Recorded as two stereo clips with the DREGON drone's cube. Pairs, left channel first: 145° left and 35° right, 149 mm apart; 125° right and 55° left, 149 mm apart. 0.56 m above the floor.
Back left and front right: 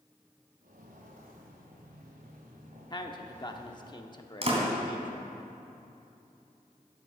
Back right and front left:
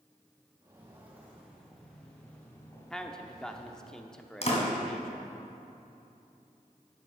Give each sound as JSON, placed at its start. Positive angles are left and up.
{"t": 0.6, "sound": "footsteps", "azimuth_deg": -15, "distance_m": 3.0}
{"t": 2.9, "sound": "a man speaking", "azimuth_deg": 155, "distance_m": 0.8}
{"t": 4.4, "sound": "a door slam", "azimuth_deg": -80, "distance_m": 2.5}